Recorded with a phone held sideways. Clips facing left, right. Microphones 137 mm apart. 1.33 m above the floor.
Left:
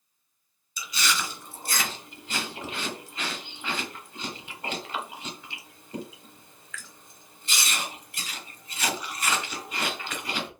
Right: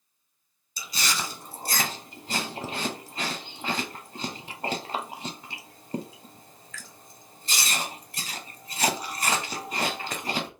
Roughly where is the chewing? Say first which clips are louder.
Left 1 dB; right.